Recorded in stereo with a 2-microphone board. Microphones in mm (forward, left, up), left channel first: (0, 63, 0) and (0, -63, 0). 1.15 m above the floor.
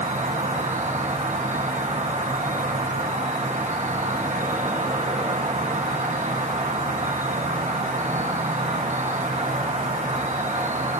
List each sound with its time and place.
0.0 s an insect: 70° right (ahead or behind), 1.3 m